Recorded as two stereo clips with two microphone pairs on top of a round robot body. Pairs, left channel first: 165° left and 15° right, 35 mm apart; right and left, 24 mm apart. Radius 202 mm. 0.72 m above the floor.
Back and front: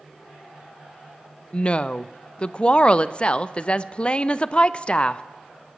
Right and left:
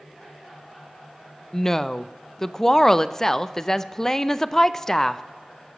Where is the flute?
No flute in this recording.